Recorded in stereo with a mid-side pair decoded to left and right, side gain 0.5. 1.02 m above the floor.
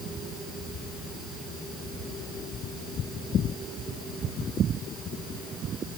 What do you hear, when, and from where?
Only background noise.